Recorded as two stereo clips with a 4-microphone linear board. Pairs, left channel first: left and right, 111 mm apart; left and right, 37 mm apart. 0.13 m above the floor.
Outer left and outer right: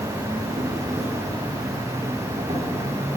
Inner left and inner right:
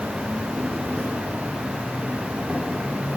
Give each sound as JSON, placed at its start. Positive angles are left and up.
{"t": 0.0, "sound": "an insect", "side_deg": -75, "distance_m": 6.0}